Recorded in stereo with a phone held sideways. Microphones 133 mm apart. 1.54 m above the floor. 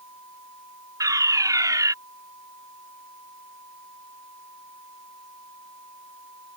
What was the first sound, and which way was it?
A fire alarm, 25° right (ahead or behind).